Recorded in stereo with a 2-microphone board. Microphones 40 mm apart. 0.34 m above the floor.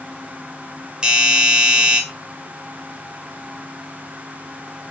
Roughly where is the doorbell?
Centre.